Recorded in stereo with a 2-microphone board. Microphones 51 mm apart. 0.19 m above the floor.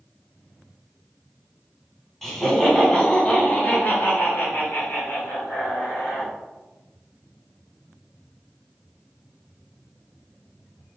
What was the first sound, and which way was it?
Laughter, 5° left (ahead or behind).